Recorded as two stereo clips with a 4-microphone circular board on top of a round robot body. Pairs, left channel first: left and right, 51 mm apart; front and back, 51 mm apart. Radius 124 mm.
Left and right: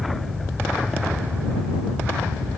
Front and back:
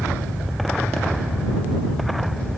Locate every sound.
Only background noise.